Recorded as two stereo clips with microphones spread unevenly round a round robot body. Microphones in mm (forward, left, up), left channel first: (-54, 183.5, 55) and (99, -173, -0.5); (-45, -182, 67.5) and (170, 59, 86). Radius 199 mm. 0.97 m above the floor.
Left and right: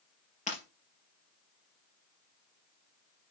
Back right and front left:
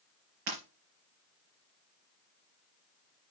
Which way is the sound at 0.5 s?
40° left.